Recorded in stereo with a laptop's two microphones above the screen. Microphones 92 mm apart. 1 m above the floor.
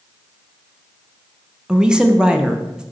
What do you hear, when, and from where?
1.7 s a woman speaking: 10° right (ahead or behind), 0.5 m